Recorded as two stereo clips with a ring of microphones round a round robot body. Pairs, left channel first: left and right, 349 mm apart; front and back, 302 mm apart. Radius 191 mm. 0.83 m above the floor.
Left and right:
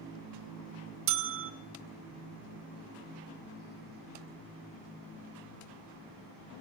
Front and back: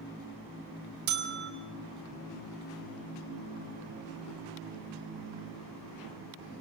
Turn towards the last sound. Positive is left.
turn(degrees=-130)